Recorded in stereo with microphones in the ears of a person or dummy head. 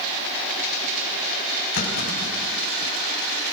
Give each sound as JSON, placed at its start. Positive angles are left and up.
{"t": 1.8, "sound": "a clunk", "side_deg": 60, "distance_m": 5.5}